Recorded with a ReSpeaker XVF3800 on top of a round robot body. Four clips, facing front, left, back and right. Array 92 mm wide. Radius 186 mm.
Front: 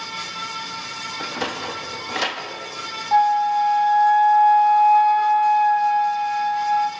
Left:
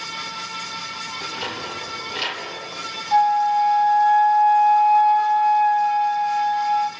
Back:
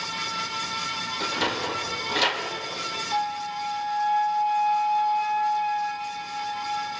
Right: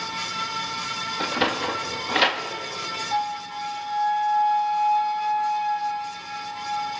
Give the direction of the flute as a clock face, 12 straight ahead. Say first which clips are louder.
Left 12 dB, front 13 dB; 11 o'clock.